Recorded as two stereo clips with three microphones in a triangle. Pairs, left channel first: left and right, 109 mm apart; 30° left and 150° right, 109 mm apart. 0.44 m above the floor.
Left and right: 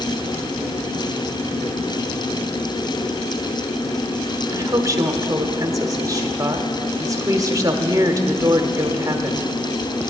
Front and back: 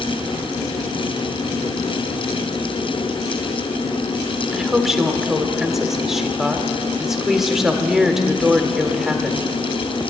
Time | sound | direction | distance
4.5 | a woman speaking | 65° right | 1.1 m